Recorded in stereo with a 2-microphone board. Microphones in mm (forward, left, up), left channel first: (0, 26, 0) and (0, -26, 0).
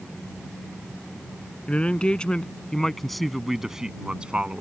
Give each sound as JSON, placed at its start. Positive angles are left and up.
{"t": 1.7, "sound": "a man speaking", "side_deg": 25}